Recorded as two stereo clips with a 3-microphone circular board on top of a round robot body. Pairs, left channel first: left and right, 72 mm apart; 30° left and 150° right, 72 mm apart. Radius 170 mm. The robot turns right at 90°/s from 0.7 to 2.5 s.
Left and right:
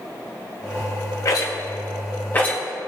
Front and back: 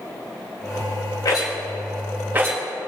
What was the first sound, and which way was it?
A rattle, 50° left.